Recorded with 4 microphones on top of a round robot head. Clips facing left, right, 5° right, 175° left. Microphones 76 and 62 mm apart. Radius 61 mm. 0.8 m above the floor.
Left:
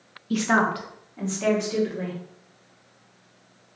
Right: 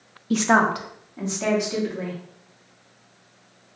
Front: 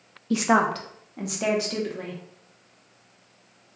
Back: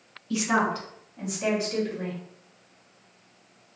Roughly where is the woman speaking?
Ahead right.